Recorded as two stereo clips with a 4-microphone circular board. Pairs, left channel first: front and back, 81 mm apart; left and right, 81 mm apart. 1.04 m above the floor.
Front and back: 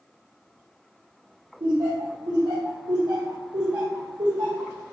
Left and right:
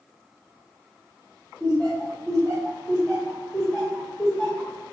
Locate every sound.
1.6 s laughter: 170° left, 0.7 m